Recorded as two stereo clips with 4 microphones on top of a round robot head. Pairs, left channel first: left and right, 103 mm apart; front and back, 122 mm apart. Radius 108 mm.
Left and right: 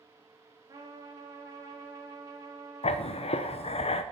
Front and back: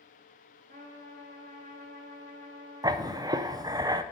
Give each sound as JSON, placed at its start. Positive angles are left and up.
{"t": 0.7, "sound": "a trumpet", "azimuth_deg": -140, "distance_m": 1.4}
{"t": 2.8, "sound": "writing", "azimuth_deg": 115, "distance_m": 0.6}